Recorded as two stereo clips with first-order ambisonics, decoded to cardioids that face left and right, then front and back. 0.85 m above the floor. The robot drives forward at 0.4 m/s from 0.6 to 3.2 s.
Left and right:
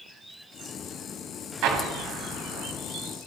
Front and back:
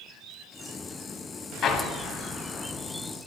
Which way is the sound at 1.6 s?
55° right.